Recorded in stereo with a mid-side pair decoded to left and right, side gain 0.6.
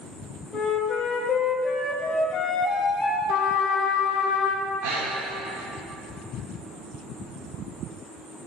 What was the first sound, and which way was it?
A flute, 35° left.